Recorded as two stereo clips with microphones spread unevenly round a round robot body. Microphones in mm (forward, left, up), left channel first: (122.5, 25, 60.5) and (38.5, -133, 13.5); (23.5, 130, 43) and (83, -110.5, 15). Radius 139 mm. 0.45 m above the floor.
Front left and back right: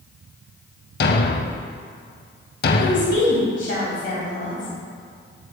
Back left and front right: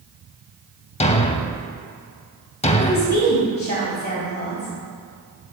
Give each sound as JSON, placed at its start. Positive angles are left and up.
{"t": 1.0, "sound": "a thud", "azimuth_deg": 40, "distance_m": 0.7}
{"t": 2.8, "sound": "a woman speaking", "azimuth_deg": 55, "distance_m": 3.5}